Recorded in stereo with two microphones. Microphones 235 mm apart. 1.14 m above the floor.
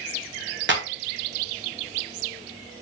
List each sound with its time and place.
0.7 s a clap: 50° right (ahead or behind), 0.7 m